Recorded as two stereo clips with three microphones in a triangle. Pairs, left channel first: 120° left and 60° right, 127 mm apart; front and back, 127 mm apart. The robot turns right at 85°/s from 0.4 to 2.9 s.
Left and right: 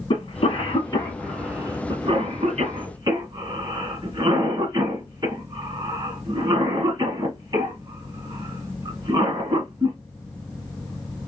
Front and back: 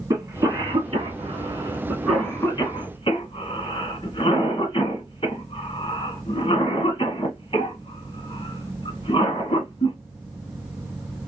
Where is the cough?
125° left, 1.6 m; by 10.0 s 25° right, 1.6 m.